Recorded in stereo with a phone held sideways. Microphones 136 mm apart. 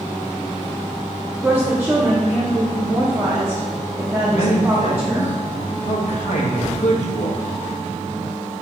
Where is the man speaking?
55° left (ahead or behind), 1.1 m.